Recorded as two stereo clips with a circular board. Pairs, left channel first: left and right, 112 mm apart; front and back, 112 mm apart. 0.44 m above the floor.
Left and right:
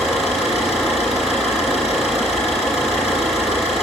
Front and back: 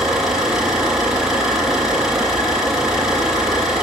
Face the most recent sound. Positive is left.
turn(degrees=95)